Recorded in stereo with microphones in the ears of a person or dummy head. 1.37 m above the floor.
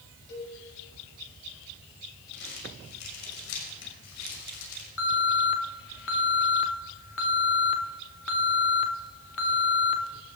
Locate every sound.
0.3 s a cowbell: 55° left (ahead or behind), 6.5 m
2.3 s crumpling: 85° left, 6.5 m
5.0 s an alarm: 75° left (ahead or behind), 2 m